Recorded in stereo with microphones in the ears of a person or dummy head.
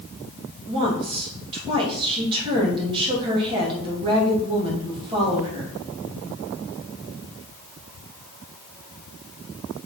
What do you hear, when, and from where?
0.7 s a woman speaking: 25° right (ahead or behind), 2.5 m